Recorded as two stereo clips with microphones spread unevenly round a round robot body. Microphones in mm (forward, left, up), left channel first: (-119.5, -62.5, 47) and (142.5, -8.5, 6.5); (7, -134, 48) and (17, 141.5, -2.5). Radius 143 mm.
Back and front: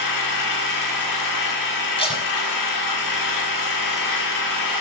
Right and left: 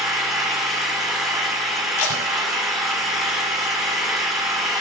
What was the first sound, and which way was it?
An engine running, 175° left.